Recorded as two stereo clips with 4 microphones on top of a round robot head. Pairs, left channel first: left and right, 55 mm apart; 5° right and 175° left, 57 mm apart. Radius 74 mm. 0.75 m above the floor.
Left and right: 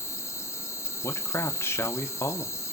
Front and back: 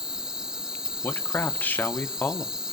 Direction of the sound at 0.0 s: 100° left.